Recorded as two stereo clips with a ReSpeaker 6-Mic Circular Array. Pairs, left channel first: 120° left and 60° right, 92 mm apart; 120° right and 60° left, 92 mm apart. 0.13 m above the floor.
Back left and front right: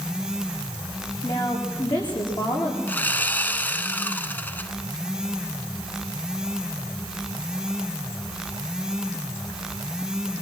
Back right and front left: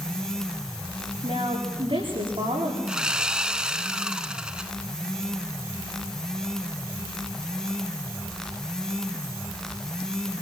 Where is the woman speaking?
85° left, 9.5 m.